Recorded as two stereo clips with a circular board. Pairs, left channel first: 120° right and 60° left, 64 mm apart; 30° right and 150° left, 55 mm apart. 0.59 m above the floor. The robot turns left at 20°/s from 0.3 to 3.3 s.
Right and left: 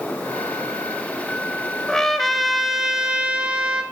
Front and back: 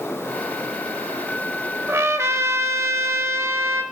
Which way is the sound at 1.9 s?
160° left.